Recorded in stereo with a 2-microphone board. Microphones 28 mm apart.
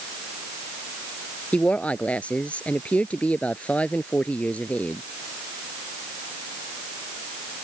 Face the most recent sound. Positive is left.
turn(degrees=50)  # may be behind; listen again after turning